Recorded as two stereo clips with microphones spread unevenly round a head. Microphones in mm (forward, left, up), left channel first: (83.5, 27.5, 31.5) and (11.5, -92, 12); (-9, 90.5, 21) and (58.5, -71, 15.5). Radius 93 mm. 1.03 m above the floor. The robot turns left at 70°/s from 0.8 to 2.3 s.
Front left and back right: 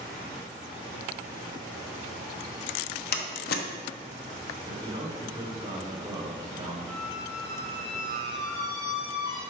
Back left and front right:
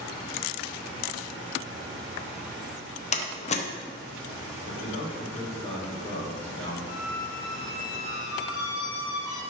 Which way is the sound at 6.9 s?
105° left.